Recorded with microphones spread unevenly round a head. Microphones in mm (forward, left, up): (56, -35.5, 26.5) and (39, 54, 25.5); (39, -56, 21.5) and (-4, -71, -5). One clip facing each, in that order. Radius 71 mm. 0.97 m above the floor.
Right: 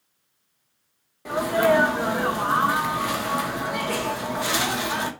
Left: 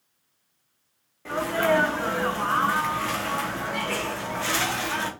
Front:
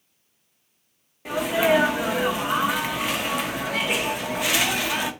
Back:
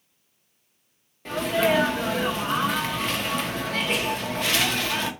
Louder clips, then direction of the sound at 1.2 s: Right 3 dB, front 2 dB; 125° right.